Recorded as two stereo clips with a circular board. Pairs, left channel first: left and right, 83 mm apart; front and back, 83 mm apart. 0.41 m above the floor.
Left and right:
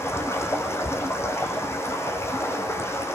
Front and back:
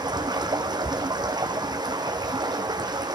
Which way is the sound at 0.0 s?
150° left.